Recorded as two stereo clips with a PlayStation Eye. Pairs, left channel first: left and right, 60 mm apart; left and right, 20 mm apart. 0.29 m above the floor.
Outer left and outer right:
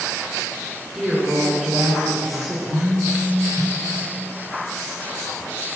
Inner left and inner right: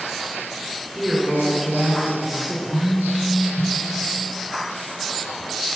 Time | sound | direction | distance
0.9 | a woman speaking | 5° left (ahead or behind) | 3.5 m
2.7 | a phone buzzing | 5° left (ahead or behind) | 1.5 m